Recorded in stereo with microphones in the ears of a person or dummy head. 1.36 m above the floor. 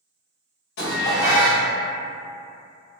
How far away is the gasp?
No gasp in this recording.